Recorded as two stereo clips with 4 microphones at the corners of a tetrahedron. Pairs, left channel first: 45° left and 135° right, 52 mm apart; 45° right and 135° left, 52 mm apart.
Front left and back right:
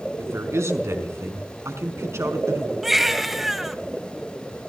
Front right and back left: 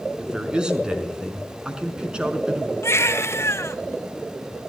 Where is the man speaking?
155° right, 4.5 m.